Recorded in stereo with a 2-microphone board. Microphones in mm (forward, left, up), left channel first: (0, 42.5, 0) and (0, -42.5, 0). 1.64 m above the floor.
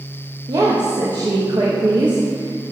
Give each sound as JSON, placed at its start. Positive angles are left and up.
{"t": 0.5, "sound": "a woman speaking", "side_deg": -65, "distance_m": 1.7}